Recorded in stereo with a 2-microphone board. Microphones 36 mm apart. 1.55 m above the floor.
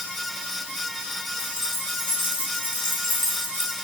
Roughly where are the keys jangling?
Right.